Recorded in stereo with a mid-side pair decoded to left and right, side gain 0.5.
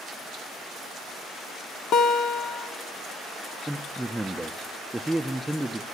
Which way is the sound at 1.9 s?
70° left.